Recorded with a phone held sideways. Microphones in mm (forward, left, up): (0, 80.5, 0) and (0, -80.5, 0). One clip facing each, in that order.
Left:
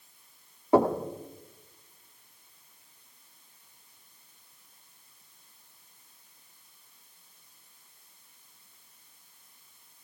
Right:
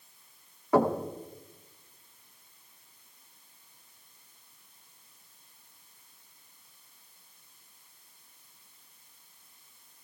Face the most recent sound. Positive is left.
turn(degrees=25)  # may be behind; listen again after turning